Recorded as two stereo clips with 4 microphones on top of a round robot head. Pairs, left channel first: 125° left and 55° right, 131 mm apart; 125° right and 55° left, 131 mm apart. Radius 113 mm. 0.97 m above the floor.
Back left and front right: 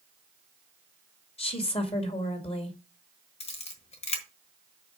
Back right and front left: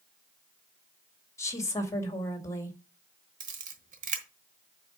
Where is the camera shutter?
85° left, 1.2 m.